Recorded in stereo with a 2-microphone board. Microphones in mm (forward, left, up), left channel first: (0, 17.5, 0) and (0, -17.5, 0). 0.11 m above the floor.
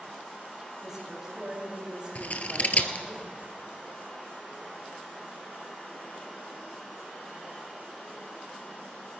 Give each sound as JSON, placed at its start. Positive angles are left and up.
{"t": 0.8, "sound": "a woman speaking", "side_deg": -15, "distance_m": 6.0}
{"t": 2.1, "sound": "scissors", "side_deg": 45, "distance_m": 1.0}